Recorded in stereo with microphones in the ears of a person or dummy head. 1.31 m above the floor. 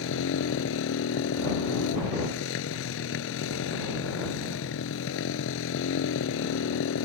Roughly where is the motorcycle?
Left.